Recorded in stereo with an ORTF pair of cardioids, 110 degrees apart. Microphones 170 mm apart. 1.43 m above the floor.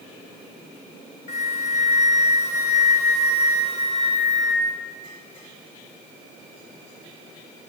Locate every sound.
1.3 s a flute: 40° left, 0.8 m